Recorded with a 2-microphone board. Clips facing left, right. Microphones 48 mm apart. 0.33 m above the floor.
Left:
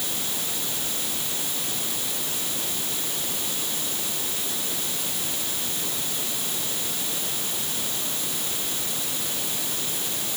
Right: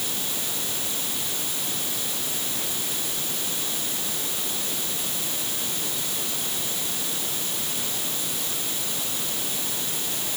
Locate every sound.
Only background noise.